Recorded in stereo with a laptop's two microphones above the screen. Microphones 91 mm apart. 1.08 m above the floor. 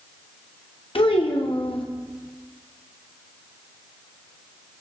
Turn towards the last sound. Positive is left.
turn(degrees=85)